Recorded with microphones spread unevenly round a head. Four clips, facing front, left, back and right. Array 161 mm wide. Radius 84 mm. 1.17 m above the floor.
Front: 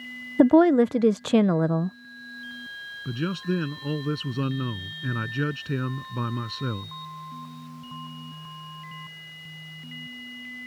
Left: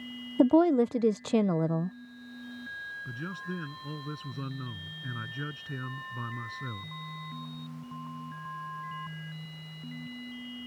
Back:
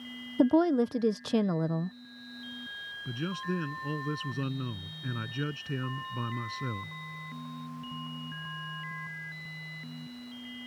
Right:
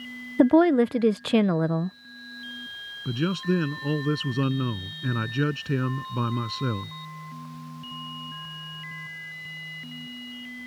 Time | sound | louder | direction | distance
0.4 | a woman speaking | right 4 dB, front 8 dB | 20° right | ?
3.0 | a man speaking | right 15 dB, front 6 dB | 65° right | ?